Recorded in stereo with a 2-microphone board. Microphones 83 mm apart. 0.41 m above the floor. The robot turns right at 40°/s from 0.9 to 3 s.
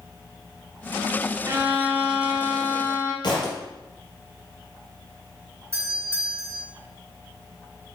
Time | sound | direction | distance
1.5 | a violin | 35° right | 1.6 m
3.2 | a thud | 55° left (ahead or behind) | 3 m
5.7 | a doorbell | 30° right (ahead or behind) | 2.5 m